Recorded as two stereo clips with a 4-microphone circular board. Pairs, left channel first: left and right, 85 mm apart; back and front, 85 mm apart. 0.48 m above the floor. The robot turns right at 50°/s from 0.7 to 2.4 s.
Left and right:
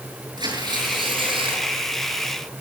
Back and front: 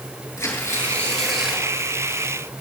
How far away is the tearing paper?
About 7 m.